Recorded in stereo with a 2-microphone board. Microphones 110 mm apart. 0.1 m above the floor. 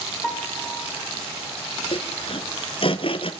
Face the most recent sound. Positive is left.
turn(degrees=55)  # may be behind; listen again after turning